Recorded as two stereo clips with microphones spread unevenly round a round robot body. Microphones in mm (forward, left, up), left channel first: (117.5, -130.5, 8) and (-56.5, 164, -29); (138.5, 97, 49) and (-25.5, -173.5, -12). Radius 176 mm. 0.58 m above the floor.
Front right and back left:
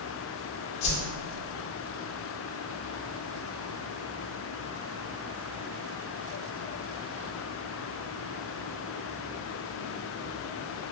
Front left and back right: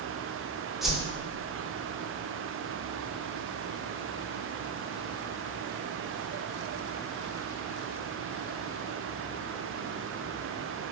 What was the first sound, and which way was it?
A whoosh, 35° right.